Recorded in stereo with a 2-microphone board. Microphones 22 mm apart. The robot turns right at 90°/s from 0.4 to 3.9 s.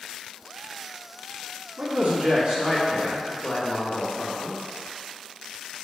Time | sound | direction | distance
1.8 | a man speaking | 110° right | 2.5 m